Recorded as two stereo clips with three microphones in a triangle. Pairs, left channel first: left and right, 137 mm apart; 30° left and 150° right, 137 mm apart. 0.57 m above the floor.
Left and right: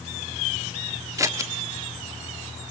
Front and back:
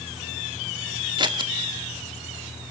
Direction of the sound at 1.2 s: 140° right.